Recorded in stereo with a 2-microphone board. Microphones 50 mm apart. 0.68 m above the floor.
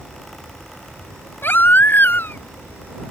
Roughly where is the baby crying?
Left.